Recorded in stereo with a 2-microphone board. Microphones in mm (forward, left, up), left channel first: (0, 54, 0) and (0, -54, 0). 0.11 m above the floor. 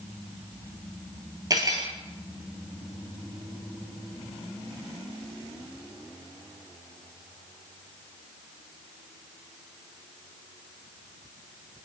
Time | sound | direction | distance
1.5 | cutlery clinking | 35° right (ahead or behind) | 1.2 m